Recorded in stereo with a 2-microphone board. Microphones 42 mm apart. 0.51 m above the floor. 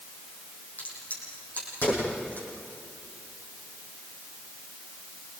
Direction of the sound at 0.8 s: 45° left (ahead or behind).